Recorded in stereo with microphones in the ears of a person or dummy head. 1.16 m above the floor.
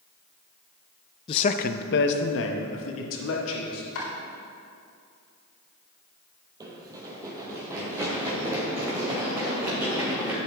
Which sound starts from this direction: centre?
Running footsteps, at 6.6 s.